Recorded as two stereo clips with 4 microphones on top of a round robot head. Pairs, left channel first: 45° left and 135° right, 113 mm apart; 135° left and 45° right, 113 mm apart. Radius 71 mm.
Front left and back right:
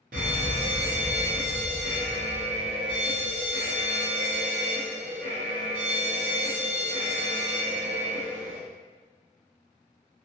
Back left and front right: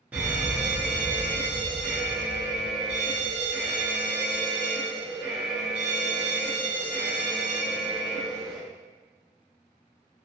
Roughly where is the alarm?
Behind right.